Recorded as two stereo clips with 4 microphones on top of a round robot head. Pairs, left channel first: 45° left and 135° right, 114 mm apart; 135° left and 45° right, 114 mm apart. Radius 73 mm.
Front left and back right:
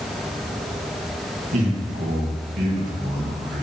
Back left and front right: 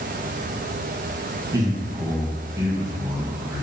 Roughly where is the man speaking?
Right.